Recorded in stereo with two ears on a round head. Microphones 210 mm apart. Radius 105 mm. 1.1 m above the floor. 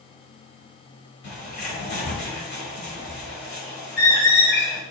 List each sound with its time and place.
1.2 s a bird: 45° left (ahead or behind), 2.5 m